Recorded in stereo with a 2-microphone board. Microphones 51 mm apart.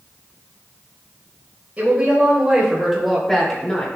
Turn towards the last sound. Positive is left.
turn(degrees=25)  # may be behind; listen again after turning